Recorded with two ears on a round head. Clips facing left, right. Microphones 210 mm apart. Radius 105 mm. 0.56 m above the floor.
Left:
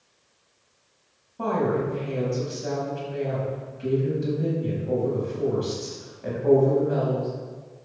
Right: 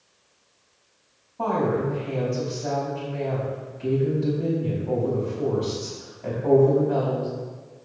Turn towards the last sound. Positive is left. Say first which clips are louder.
# even
turn(degrees=20)  # may be behind; listen again after turning